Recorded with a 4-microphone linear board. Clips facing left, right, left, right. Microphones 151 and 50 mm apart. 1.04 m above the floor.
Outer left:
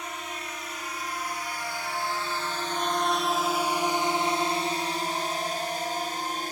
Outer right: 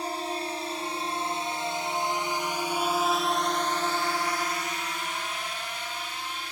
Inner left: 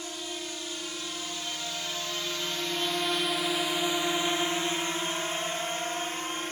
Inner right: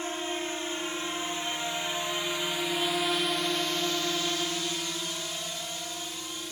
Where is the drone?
35° right (ahead or behind); by 6.5 s 45° left (ahead or behind).